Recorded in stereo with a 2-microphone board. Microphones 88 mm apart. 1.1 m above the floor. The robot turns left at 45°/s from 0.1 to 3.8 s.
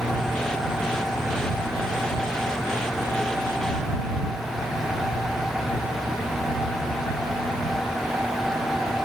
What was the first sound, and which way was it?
Only background noise.